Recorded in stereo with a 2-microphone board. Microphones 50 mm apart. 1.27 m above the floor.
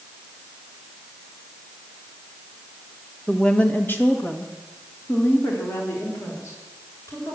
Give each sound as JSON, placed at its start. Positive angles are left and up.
{"t": 3.3, "sound": "a woman speaking", "side_deg": 10, "distance_m": 1.4}